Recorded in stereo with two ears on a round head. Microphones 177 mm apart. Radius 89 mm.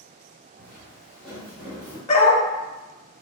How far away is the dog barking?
About 0.7 m.